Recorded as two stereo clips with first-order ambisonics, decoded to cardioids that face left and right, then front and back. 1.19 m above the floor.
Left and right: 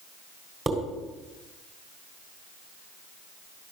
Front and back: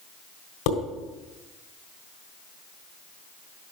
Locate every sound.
0.7 s dishes clattering: 10° right, 3.5 m